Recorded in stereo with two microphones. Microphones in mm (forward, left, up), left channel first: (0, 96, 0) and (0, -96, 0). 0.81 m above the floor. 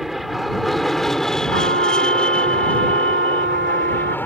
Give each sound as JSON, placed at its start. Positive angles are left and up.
{"t": 0.0, "sound": "an aircraft", "side_deg": 0}
{"t": 1.5, "sound": "a trumpet", "side_deg": -85}